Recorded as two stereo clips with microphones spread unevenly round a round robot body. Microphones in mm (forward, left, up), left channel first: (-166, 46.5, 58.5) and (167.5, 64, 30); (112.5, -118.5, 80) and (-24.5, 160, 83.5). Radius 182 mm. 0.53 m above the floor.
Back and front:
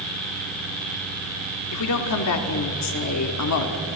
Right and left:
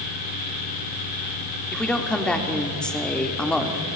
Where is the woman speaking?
150° right, 1.7 m.